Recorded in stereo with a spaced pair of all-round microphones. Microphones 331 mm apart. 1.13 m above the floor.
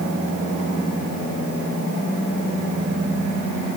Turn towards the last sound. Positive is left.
No sound to turn to.